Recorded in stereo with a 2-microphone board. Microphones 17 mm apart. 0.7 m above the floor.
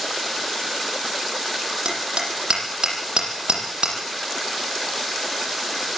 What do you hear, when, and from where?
1.9 s hammering: 85° right, 8.5 m